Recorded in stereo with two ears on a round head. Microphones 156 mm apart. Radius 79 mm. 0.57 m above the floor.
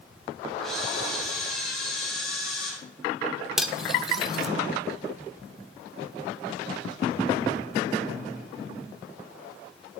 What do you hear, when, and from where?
0.6 s a camera shutter: 5° left (ahead or behind), 4 m
3.6 s cutlery clinking: centre (ahead or behind), 0.8 m